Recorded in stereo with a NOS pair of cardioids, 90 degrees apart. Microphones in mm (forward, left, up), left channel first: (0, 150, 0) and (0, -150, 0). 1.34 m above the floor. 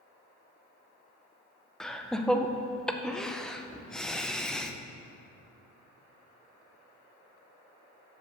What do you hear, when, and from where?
1.8 s laughter: straight ahead, 0.6 m